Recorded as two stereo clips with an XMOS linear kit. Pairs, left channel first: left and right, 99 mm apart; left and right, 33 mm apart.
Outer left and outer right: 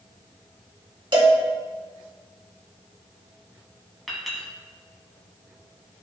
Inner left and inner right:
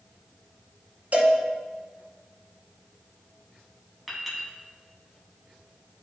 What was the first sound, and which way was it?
A cowbell, 55° right (ahead or behind).